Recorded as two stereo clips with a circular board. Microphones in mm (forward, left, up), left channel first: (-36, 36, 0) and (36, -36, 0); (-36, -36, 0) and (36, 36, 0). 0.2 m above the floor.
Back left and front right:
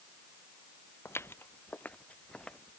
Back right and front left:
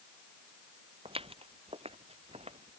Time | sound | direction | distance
1.1 | footsteps | 70° left | ?